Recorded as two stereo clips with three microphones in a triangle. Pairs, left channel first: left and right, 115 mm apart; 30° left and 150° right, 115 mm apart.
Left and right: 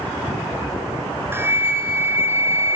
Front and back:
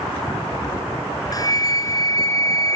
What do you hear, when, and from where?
1.3 s a flute: 25° right, 2.5 m